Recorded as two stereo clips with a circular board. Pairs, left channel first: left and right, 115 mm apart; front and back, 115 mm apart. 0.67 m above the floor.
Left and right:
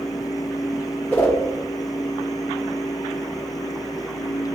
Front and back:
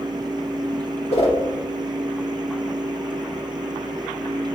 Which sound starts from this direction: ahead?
A whoosh, at 1.1 s.